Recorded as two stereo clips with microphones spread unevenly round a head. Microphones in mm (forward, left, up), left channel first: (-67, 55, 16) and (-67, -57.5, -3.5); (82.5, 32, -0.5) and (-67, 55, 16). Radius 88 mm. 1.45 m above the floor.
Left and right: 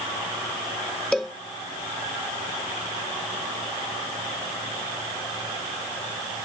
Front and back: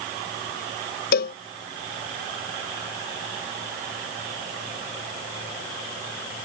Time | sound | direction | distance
1.1 | a cowbell | 5° left | ?